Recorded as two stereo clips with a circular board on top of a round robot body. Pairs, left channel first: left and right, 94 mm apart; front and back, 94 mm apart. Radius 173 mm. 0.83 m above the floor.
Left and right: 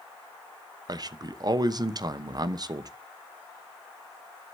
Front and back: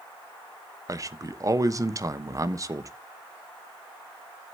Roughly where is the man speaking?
Behind right.